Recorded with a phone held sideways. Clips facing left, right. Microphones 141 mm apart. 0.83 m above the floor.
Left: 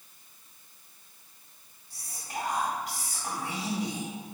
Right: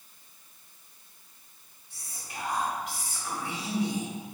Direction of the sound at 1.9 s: 40° left (ahead or behind).